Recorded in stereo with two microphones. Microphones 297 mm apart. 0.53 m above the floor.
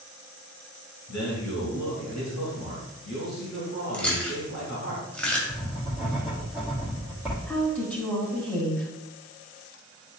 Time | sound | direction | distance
1.1 | a man speaking | 65° left (ahead or behind) | 3 m
3.9 | chewing | 5° left (ahead or behind) | 2 m
5.5 | writing | centre (ahead or behind) | 3 m
7.5 | a woman speaking | 5° left (ahead or behind) | 3.5 m